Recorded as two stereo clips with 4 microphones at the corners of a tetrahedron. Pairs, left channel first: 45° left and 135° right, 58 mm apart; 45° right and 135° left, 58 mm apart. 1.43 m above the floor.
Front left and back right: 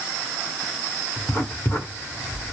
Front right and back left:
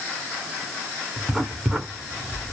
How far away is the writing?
About 1.3 m.